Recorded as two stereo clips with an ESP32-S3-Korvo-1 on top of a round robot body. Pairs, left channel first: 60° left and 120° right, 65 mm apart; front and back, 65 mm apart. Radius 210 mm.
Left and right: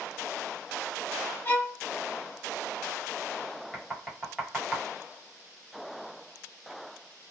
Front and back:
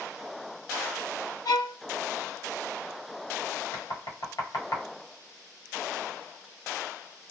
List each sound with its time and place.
1.4 s a violin: 5° left, 1.1 m
3.7 s knocking: 25° right, 1.4 m